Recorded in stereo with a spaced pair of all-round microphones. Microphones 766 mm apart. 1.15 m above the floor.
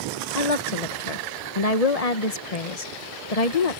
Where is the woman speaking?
50° left (ahead or behind).